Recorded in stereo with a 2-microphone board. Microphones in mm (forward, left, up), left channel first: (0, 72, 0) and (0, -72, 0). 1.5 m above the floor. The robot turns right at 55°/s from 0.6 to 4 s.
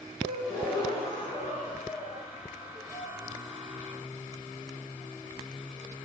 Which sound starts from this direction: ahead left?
A gasp, at 0.2 s.